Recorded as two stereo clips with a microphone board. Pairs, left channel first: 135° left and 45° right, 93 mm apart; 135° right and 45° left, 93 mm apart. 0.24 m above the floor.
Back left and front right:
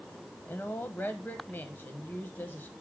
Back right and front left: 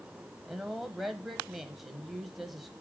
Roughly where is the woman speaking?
Behind left.